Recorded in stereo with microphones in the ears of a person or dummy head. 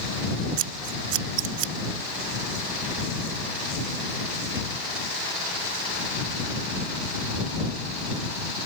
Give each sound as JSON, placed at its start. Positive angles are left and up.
{"t": 0.6, "sound": "scissors", "side_deg": -70}